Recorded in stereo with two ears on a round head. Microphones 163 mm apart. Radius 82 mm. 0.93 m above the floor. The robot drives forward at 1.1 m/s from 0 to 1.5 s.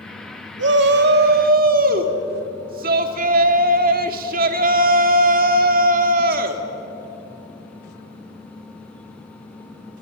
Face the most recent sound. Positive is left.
turn(degrees=-50)  # may be behind; listen again after turning